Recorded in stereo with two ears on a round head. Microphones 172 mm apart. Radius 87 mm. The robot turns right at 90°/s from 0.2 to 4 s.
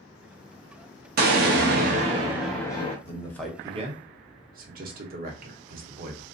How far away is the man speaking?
About 0.9 m.